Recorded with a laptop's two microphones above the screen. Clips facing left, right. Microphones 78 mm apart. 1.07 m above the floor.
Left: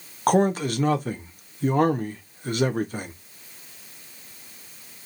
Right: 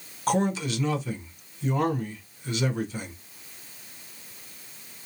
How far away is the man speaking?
About 0.8 m.